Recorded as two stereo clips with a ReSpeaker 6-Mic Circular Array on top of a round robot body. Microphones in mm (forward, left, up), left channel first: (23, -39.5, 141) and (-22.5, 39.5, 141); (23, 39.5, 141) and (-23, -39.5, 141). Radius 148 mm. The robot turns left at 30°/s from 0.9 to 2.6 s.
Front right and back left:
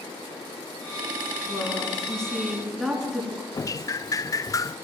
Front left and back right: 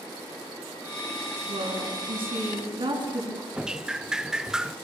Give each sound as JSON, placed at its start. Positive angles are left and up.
{"t": 1.5, "sound": "a woman speaking", "azimuth_deg": -120, "distance_m": 8.0}
{"t": 3.5, "sound": "dripping", "azimuth_deg": -40, "distance_m": 0.8}